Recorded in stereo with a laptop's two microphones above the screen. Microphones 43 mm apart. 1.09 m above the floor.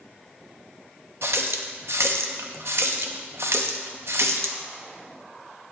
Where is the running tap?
75° right (ahead or behind), 0.7 m.